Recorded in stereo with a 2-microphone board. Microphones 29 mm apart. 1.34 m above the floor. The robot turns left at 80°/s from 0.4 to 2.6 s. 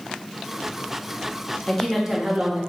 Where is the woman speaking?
20° left, 0.6 m; by 2.6 s 55° right, 0.6 m.